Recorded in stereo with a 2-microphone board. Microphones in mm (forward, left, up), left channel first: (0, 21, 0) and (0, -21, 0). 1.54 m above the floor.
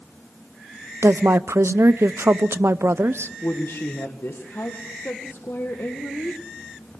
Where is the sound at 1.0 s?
80° right, 0.6 m.